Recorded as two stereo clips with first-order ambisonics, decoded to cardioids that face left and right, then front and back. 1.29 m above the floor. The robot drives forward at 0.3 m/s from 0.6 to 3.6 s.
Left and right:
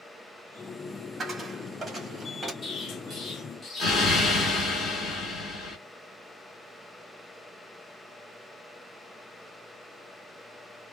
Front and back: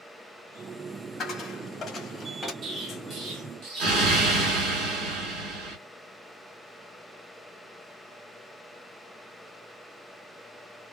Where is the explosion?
150° left, 1.0 m; by 5.8 s 155° left, 1.2 m.